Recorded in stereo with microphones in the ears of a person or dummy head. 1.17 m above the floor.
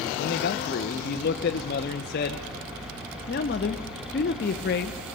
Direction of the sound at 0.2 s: 50° left (ahead or behind).